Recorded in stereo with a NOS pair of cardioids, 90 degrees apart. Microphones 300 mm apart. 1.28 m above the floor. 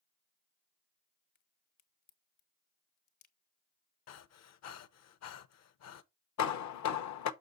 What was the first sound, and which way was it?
A crack, 70° left.